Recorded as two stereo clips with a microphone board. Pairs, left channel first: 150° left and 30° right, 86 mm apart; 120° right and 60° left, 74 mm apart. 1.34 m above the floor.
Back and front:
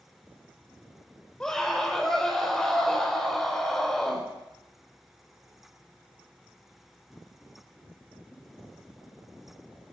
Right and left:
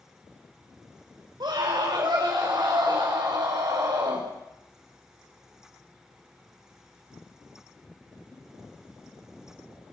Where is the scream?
70° left, 4.5 m.